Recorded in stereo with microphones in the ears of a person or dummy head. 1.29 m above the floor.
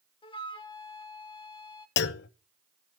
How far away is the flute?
About 1.0 m.